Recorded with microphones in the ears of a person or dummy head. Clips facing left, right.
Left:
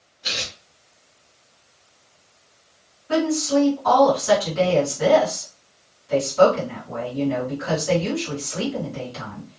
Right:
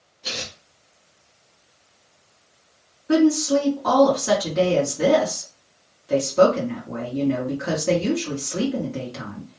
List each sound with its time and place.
0.2 s tearing paper: 5° left (ahead or behind), 1.2 m
3.1 s a woman speaking: 60° right (ahead or behind), 0.8 m